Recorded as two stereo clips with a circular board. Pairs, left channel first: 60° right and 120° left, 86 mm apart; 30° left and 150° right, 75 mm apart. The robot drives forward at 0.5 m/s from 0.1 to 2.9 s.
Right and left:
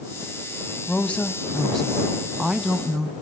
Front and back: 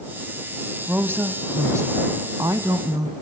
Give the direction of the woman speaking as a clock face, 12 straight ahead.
4 o'clock.